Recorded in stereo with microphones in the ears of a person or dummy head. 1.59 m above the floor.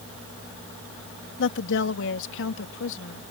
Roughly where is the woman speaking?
Left.